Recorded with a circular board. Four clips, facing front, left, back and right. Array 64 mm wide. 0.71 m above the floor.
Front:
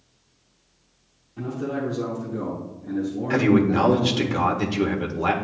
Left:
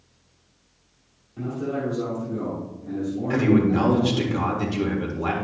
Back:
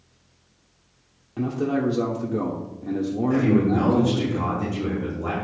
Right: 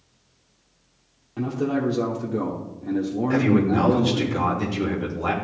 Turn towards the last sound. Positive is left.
turn(degrees=5)